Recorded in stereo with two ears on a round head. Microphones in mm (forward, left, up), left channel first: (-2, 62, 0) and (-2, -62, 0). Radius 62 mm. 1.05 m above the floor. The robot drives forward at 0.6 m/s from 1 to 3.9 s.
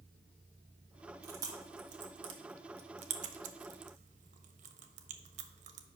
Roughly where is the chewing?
Right.